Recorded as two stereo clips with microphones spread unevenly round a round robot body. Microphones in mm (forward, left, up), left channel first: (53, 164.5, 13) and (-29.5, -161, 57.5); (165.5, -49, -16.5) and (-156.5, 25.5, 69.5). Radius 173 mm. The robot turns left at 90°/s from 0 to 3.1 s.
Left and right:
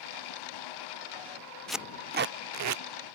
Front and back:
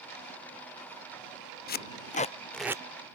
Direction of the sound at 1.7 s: Straight ahead.